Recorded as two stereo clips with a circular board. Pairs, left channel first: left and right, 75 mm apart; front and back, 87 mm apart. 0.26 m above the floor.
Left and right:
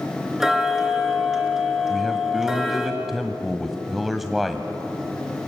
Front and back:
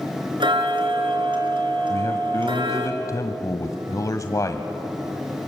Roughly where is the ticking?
Behind.